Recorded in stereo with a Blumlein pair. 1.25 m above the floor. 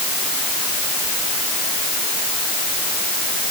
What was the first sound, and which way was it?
Only background noise.